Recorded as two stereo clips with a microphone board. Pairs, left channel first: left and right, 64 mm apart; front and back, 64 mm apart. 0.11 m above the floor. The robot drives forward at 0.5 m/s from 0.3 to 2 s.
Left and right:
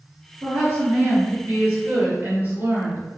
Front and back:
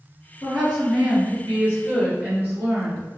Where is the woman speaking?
85° right, 1.9 m; by 3.0 s 125° right, 2 m.